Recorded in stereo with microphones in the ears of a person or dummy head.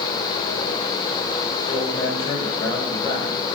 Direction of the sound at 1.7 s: 20° left (ahead or behind).